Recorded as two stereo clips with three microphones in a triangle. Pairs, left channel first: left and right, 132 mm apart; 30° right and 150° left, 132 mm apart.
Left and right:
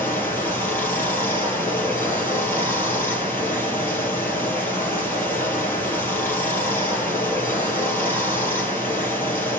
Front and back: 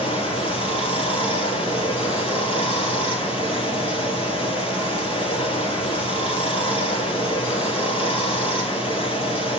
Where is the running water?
15° left, 3 m.